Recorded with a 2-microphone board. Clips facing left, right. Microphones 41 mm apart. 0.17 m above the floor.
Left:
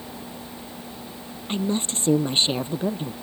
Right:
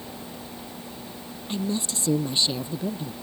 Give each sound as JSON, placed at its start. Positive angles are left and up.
{"t": 1.5, "sound": "a woman speaking", "side_deg": 35}